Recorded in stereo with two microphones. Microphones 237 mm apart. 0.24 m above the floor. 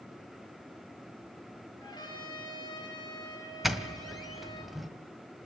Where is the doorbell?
Centre (ahead or behind), 1.6 m.